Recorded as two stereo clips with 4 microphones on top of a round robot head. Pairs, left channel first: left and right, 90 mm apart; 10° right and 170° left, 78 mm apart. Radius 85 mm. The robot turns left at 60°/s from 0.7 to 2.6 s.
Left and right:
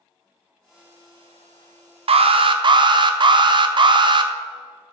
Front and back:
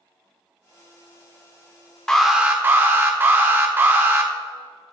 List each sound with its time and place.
2.1 s an alarm: 95° right, 0.6 m; by 4.3 s 125° right, 0.6 m